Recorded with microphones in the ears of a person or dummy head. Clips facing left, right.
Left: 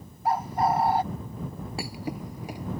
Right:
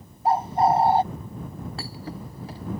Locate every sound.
0.2 s a bird: 25° right (ahead or behind)
1.8 s a thud: 10° left (ahead or behind)